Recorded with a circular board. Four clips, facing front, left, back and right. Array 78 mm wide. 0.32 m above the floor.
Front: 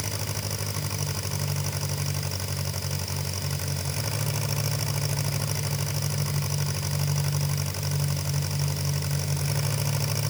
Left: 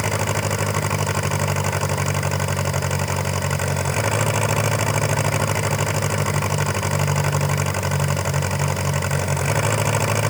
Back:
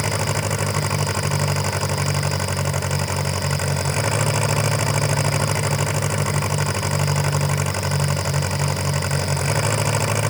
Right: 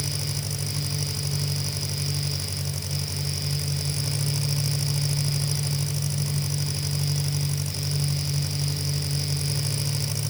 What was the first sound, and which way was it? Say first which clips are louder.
An engine running: left 11 dB, back 11 dB; 125° left.